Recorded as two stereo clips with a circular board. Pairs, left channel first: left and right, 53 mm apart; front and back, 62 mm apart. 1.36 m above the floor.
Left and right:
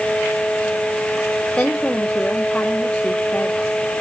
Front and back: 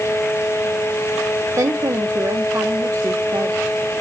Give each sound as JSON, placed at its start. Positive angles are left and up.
{"t": 1.6, "sound": "a woman speaking", "azimuth_deg": 160, "distance_m": 0.7}